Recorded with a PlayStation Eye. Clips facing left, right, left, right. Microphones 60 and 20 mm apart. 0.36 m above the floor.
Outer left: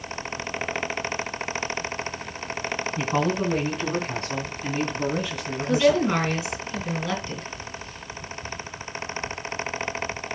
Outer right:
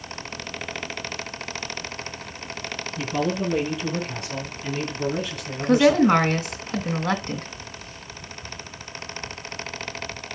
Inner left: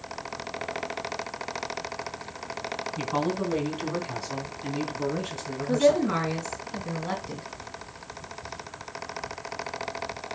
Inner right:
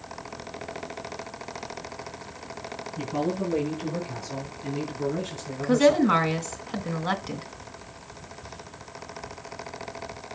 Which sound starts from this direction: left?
A man speaking, at 3.0 s.